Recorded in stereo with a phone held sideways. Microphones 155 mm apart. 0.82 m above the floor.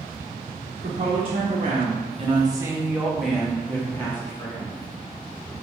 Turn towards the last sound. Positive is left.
turn(degrees=20)  # may be behind; listen again after turning